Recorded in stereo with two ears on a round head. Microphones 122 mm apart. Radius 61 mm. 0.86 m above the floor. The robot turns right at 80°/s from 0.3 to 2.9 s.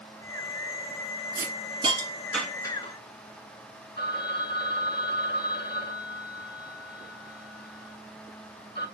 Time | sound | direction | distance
1.4 | a hiss | 65° right (ahead or behind) | 1.8 m
4.0 | a phone ringing | 35° left (ahead or behind) | 4 m